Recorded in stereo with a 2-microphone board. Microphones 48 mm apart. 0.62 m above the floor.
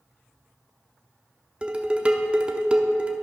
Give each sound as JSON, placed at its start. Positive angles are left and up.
{"t": 1.6, "sound": "dishes clattering", "side_deg": -20, "distance_m": 0.8}